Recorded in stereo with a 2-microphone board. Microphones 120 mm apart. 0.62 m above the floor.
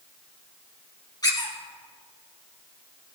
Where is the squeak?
35° left (ahead or behind), 2.5 m.